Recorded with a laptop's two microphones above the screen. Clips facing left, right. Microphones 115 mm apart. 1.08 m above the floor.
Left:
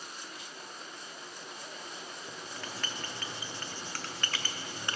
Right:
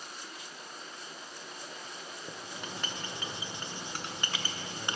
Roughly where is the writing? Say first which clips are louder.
Right 2 dB; centre.